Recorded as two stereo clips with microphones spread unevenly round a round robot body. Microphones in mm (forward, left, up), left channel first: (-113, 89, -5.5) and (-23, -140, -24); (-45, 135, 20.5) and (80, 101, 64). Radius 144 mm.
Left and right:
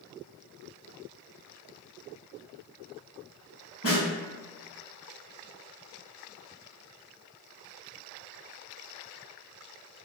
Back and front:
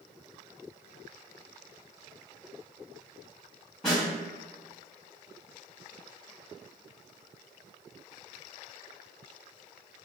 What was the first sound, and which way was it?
A snare drum, 100° left.